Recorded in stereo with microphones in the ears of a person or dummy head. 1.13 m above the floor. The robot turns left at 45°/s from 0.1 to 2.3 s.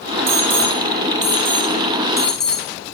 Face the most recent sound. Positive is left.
turn(degrees=5)  # may be behind; listen again after turning